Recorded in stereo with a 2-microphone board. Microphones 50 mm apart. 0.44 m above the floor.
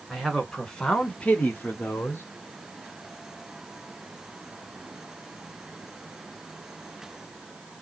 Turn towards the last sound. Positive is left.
turn(degrees=40)  # may be behind; listen again after turning